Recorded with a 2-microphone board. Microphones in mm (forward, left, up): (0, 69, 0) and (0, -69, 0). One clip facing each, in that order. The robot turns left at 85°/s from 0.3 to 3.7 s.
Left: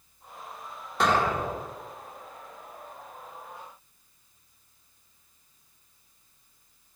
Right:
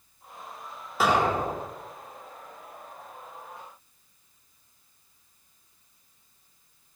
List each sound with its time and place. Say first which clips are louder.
1.0 s an explosion: right 1 dB; 5° right, 1.3 m; by 1.7 s 65° right, 1.3 m